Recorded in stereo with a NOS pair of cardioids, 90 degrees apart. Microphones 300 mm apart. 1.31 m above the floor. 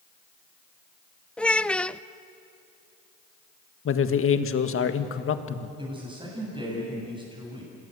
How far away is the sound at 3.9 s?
About 1.8 m.